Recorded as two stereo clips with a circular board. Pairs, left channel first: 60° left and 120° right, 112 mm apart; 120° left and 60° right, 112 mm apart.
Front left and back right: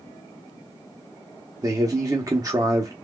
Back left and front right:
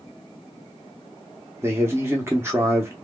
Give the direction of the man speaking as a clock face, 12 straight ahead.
4 o'clock.